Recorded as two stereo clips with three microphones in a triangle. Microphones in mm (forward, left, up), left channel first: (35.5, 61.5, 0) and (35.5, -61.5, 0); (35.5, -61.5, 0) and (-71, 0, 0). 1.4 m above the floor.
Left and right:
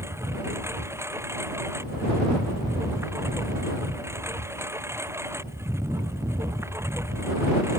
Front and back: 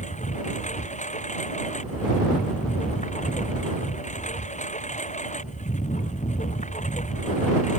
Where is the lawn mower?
20° right.